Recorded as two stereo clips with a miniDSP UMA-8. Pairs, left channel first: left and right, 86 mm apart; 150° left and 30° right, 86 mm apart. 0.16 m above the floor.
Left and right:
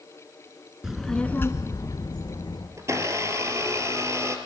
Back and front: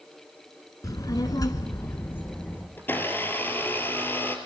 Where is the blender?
145° right, 2.5 m.